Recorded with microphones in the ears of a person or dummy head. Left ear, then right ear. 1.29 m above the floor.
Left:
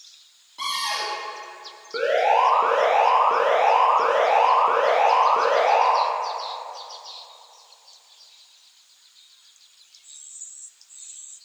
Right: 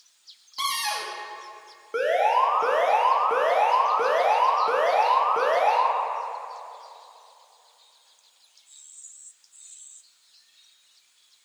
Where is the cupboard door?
45° right (ahead or behind), 0.9 m.